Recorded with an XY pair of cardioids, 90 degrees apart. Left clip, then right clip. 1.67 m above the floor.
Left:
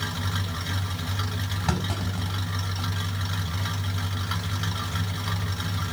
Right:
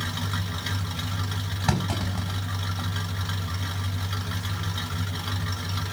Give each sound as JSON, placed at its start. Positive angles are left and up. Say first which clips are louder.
{"t": 1.7, "sound": "a clunk", "louder": "right 3 dB", "azimuth_deg": -30, "distance_m": 5.0}